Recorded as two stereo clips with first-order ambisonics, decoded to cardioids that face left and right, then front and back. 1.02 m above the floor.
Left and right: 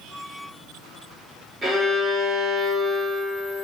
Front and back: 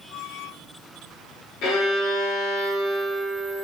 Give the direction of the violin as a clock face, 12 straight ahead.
1 o'clock.